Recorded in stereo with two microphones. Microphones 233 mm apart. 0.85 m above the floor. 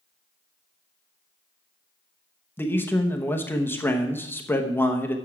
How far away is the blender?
I don't hear a blender.